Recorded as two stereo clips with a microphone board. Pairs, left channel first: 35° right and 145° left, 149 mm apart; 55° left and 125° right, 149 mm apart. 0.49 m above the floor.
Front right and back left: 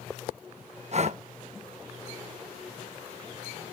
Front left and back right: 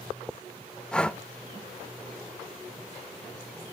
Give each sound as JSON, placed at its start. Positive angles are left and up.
{"t": 0.9, "sound": "breathing", "azimuth_deg": 140, "distance_m": 0.5}